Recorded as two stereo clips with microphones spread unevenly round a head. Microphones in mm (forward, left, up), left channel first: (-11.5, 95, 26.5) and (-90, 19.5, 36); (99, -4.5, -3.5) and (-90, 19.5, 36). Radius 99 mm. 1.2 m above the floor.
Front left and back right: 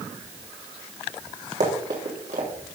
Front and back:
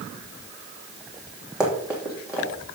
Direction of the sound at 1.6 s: 105° right.